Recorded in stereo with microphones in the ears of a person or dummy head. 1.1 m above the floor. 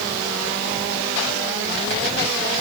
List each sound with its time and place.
Only background noise.